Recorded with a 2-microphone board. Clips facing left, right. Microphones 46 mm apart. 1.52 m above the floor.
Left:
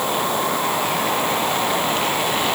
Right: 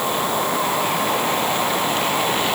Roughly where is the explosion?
No explosion in this recording.